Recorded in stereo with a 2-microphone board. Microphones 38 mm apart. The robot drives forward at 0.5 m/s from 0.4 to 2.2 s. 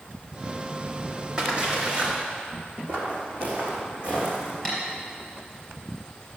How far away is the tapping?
About 4.5 m.